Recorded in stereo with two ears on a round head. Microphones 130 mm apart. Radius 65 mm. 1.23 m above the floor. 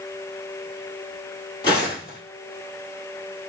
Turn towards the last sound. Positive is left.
turn(degrees=30)  # may be behind; listen again after turning